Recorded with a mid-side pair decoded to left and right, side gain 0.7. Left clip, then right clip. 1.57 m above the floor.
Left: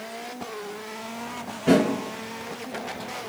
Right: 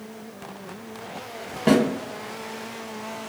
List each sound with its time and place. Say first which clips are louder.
1.7 s a snare drum: even; 45° right, 1.6 m